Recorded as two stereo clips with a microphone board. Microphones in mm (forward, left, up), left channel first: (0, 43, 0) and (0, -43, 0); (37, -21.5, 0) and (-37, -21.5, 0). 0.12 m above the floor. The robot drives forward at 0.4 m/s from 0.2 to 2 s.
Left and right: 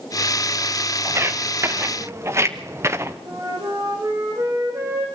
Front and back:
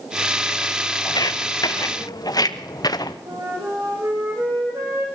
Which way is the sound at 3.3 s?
140° right.